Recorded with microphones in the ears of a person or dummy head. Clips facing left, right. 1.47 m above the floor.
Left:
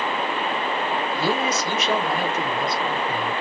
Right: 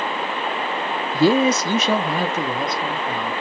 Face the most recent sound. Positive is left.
turn(degrees=-55)  # may be behind; listen again after turning